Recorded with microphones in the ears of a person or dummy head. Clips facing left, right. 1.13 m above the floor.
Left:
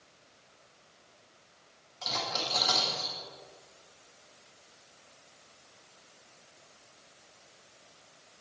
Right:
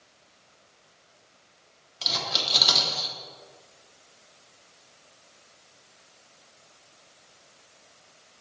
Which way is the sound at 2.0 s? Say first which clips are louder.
Right 1 dB; 45° right (ahead or behind).